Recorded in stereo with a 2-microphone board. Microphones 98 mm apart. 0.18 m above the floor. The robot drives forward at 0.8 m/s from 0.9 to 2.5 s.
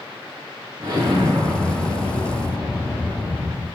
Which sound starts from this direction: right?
An explosion, at 0.8 s.